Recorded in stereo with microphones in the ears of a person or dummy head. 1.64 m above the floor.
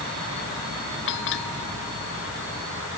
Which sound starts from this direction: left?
A bell, at 1.1 s.